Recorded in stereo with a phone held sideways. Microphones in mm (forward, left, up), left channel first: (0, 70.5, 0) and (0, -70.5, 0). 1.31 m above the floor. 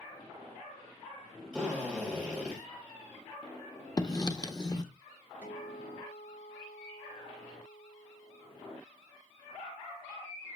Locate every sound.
1.5 s a drill: 5° left (ahead or behind), 4.5 m
4.0 s writing: 30° left (ahead or behind), 0.8 m
5.4 s a guitar: 65° left (ahead or behind), 3 m